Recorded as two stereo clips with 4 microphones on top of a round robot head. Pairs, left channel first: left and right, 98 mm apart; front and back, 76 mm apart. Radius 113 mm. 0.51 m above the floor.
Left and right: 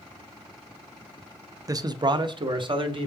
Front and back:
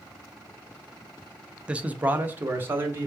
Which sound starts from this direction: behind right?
A man speaking, at 1.7 s.